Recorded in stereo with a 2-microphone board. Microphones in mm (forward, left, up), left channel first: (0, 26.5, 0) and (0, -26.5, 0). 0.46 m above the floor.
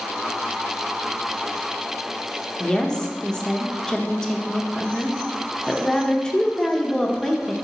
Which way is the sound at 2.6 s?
10° left (ahead or behind).